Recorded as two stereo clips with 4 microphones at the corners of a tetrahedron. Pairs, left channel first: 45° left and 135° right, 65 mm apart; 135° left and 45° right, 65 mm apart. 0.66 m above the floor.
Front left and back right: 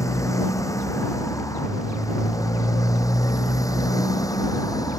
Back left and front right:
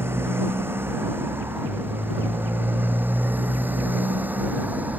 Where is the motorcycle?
10° left; by 5.0 s 20° left.